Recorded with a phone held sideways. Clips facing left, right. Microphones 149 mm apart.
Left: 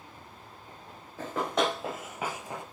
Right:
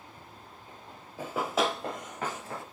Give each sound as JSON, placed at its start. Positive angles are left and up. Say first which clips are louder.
{"t": 1.2, "sound": "running footsteps", "louder": "even", "side_deg": -15, "distance_m": 1.2}